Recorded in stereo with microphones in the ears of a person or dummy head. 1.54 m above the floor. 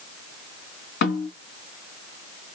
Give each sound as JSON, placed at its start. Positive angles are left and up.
{"t": 1.0, "sound": "a snare drum", "side_deg": 45, "distance_m": 1.9}